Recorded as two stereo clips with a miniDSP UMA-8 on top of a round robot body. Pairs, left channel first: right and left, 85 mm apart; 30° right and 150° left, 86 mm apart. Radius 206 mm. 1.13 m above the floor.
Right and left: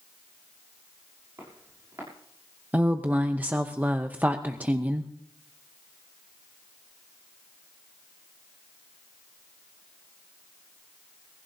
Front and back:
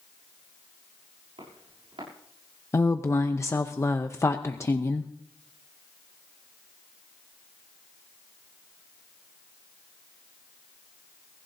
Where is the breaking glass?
No breaking glass in this recording.